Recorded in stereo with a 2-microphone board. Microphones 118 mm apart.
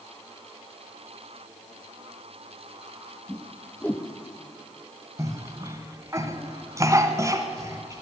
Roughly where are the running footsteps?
No running footsteps in this recording.